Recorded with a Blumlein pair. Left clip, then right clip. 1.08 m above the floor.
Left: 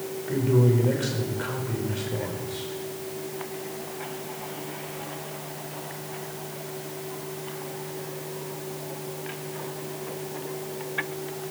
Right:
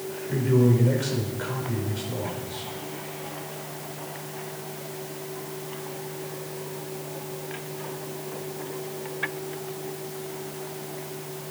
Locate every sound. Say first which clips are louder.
0.3 s a man speaking: right 1 dB; straight ahead, 5 m